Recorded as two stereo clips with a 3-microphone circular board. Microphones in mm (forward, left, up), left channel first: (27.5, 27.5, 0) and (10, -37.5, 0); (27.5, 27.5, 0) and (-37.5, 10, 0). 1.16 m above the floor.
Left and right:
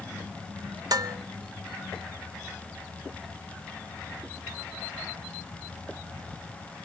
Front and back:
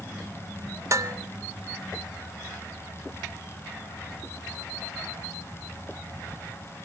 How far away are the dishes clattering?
About 0.7 m.